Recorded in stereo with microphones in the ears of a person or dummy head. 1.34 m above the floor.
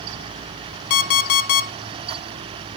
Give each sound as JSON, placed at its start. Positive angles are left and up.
{"t": 0.9, "sound": "an alarm clock", "side_deg": 55, "distance_m": 0.6}